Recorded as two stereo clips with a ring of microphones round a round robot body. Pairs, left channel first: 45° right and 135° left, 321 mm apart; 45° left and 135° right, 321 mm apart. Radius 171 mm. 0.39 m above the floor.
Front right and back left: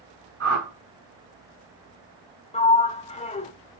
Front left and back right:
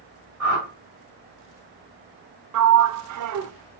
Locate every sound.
0.4 s a whoosh: 170° right, 2.5 m
2.5 s a sliding door: 115° right, 0.7 m